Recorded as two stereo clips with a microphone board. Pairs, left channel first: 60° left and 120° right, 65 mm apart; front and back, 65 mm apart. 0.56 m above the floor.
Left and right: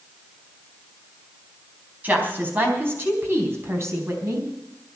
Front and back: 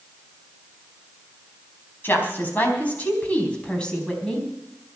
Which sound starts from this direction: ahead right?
A woman speaking, at 2.0 s.